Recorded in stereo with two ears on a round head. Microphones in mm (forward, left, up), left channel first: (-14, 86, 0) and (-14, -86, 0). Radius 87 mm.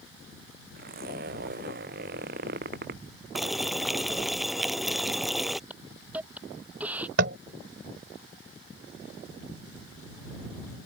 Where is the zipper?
50° right (ahead or behind).